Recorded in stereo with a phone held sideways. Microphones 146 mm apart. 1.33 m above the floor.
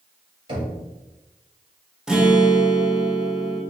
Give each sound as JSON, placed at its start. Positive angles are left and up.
{"t": 0.5, "sound": "knocking", "side_deg": -35, "distance_m": 1.8}
{"t": 2.1, "sound": "a guitar", "side_deg": -5, "distance_m": 0.7}